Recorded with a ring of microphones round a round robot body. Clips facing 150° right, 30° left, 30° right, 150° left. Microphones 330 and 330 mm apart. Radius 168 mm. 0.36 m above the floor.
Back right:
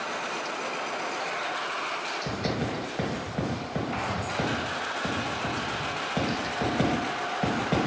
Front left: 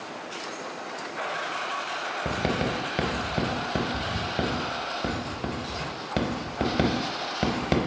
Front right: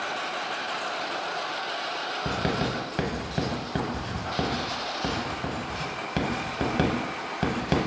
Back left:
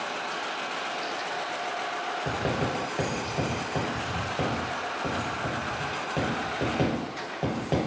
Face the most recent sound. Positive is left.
turn(degrees=20)